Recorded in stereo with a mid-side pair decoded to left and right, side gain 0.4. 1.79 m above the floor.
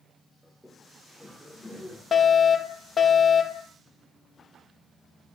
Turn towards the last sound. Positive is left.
turn(degrees=50)